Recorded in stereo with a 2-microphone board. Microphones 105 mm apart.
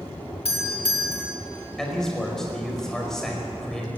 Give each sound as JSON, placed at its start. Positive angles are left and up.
{"t": 0.5, "sound": "a doorbell", "side_deg": 60, "distance_m": 3.0}
{"t": 1.8, "sound": "a man speaking", "side_deg": 5, "distance_m": 4.5}